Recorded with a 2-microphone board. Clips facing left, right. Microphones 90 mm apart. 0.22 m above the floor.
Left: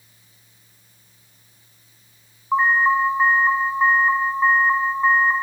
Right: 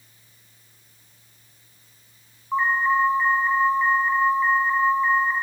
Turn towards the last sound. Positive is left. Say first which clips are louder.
# left 3 dB
turn(degrees=40)  # may be behind; listen again after turning